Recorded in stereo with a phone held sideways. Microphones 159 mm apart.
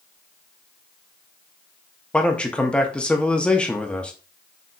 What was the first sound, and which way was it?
A man speaking, 5° left (ahead or behind).